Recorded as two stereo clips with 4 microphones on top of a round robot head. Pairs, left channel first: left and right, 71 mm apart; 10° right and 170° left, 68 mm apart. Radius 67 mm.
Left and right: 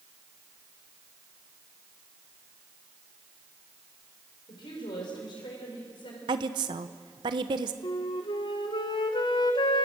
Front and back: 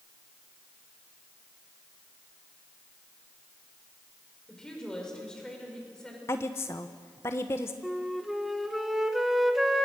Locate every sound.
4.5 s a woman speaking: 70° left, 6 m
6.3 s a woman speaking: 70° right, 1.1 m
7.8 s a flute: 85° left, 1.7 m